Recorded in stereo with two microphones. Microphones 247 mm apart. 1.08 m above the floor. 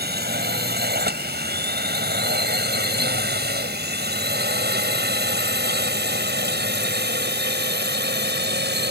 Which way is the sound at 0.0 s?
40° right (ahead or behind).